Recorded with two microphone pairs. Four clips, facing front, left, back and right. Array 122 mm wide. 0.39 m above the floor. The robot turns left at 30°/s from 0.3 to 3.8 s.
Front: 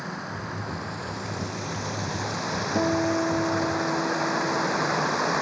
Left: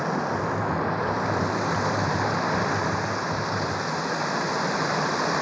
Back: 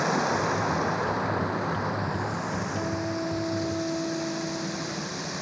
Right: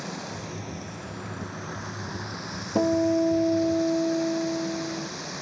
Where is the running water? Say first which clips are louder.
Left 10 dB, back 9 dB; 150° left; by 5.4 s 45° left.